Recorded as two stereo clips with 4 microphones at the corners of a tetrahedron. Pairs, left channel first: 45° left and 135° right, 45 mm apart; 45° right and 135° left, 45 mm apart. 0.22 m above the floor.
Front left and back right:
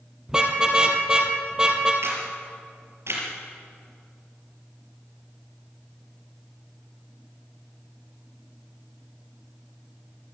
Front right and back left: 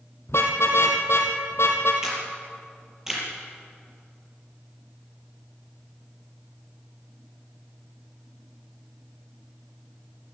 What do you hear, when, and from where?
0.3 s a car horn: 60° right, 3 m
2.0 s a camera shutter: 145° right, 5.5 m